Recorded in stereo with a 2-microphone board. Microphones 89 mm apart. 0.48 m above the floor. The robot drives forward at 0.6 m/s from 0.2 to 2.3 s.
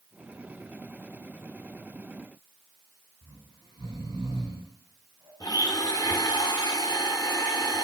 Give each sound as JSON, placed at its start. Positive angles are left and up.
{"t": 3.2, "sound": "snoring", "side_deg": -45, "distance_m": 4.5}
{"t": 5.4, "sound": "a blender", "side_deg": 45, "distance_m": 0.6}